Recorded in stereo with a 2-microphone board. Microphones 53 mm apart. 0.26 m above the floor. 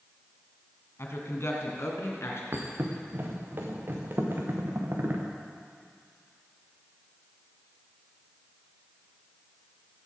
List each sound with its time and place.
1.0 s a woman speaking: 55° left (ahead or behind), 2.5 m; by 2.4 s 60° left (ahead or behind), 4 m
2.5 s a thud: 45° right (ahead or behind), 3 m